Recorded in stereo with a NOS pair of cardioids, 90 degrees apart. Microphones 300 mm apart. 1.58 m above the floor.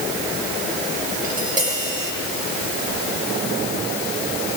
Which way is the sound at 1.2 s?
25° right.